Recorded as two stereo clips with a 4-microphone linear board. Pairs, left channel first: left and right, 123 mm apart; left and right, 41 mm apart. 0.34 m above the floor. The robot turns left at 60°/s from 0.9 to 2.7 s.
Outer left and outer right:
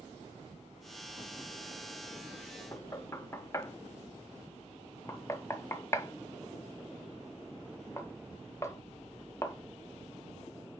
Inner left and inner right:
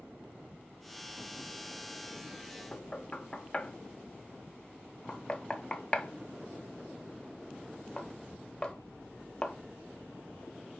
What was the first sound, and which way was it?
Knocking, 25° left (ahead or behind).